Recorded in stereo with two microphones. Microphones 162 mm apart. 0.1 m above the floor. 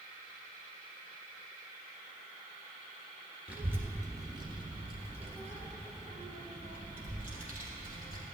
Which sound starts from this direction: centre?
A child speaking, at 3.5 s.